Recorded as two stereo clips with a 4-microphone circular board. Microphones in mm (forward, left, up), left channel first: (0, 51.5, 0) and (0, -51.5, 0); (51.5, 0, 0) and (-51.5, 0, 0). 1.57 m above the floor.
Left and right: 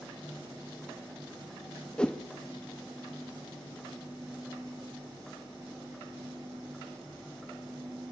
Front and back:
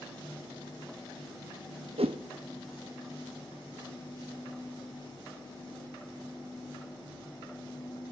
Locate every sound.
2.0 s a whoosh: 170° left, 1.0 m